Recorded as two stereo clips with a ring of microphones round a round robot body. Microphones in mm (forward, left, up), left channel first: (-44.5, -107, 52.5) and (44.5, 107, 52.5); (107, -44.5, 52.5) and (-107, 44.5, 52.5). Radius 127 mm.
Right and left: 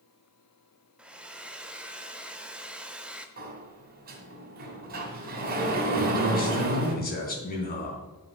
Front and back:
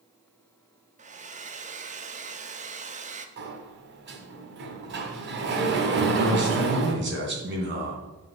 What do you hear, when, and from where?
1.0 s a hair dryer: 150° left, 0.9 m
3.4 s a sliding door: 115° left, 1.6 m
6.0 s a man speaking: 165° right, 3.5 m